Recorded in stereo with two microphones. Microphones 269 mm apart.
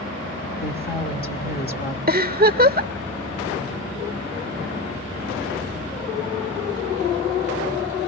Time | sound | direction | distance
0.6 | a woman speaking | 35° left (ahead or behind) | 1.4 m
2.1 | a giggle | 35° right (ahead or behind) | 0.8 m